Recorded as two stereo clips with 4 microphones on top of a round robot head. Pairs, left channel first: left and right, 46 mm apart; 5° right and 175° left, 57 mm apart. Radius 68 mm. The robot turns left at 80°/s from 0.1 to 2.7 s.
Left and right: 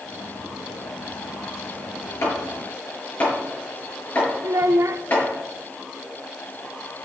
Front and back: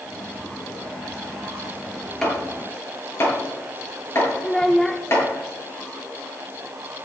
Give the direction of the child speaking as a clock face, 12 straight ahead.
3 o'clock.